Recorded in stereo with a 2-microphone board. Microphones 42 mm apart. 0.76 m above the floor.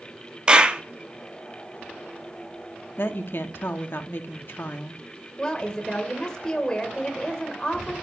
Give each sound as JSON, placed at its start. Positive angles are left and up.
{"t": 0.5, "sound": "a clap", "side_deg": -25, "distance_m": 0.9}
{"t": 3.0, "sound": "a woman speaking", "side_deg": 65, "distance_m": 1.2}
{"t": 5.4, "sound": "a woman speaking", "side_deg": 20, "distance_m": 2.5}